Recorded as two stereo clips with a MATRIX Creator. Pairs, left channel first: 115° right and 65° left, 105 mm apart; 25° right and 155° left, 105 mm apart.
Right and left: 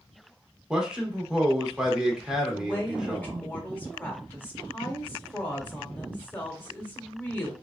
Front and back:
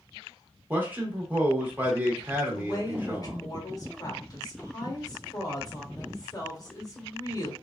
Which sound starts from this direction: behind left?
A man speaking, at 0.7 s.